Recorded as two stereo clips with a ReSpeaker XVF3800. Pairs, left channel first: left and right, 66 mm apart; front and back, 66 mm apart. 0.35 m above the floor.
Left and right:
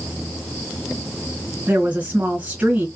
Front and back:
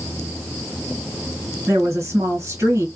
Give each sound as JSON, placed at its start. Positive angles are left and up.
{"t": 1.7, "sound": "a woman speaking", "azimuth_deg": -155, "distance_m": 1.9}